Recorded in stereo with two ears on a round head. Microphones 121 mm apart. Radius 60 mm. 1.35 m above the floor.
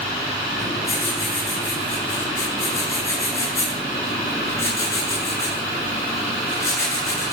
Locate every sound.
0.6 s writing: 25° left (ahead or behind), 7.5 m